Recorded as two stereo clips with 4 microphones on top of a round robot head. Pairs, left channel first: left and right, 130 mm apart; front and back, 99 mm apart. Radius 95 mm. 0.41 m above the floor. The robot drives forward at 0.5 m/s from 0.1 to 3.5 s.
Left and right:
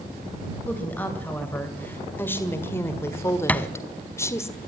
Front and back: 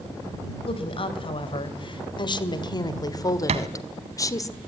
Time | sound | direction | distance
0.7 | a woman speaking | 10° left | 2.5 m
3.5 | a thud | 170° left | 1.0 m